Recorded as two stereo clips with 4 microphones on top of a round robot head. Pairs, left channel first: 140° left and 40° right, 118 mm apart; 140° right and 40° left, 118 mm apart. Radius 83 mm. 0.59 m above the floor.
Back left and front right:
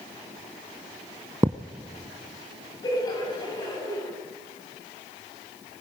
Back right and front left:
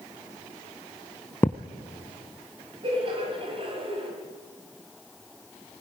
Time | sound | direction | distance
1.4 | a thud | 75° right | 0.5 m
2.8 | laughter | 85° left | 5 m